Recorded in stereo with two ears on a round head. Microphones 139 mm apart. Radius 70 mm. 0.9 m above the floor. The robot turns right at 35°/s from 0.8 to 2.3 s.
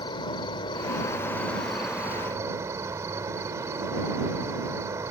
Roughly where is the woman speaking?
No woman speaking in this recording.